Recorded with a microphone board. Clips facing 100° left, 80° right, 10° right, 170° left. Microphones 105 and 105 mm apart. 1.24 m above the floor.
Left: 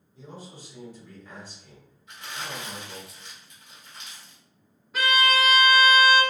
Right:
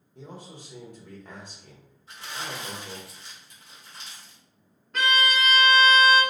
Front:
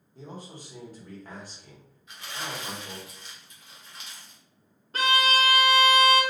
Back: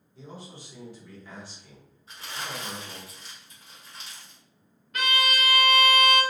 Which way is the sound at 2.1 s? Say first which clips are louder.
Right 1 dB, even; 135° right.